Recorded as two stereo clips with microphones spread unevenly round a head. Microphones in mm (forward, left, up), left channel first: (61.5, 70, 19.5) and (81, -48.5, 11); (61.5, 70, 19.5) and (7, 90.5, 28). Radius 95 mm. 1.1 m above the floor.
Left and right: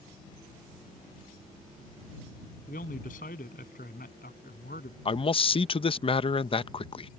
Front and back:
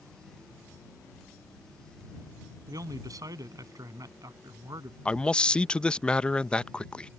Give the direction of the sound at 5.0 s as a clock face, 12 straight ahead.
10 o'clock.